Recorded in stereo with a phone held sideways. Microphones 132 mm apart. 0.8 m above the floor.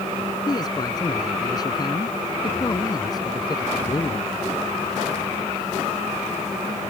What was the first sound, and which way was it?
A man speaking, 30° left (ahead or behind).